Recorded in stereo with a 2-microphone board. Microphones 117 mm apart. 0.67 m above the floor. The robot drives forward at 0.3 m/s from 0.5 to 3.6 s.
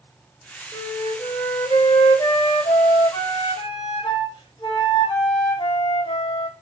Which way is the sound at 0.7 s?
30° left (ahead or behind).